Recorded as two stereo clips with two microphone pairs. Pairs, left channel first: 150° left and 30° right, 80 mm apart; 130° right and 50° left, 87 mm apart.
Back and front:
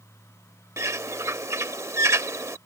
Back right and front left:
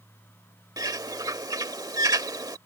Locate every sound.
0.8 s a bird: 15° left